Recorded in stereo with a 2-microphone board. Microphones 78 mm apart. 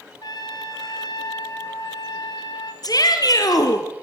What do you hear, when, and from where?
0.2 s a trumpet: 60° left (ahead or behind), 1.5 m
2.8 s a shout: 50° left (ahead or behind), 2.5 m